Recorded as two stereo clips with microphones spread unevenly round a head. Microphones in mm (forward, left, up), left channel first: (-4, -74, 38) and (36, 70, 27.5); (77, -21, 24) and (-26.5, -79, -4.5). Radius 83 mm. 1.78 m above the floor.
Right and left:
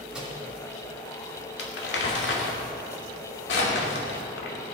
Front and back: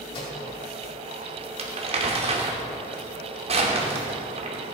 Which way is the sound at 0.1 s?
10° right.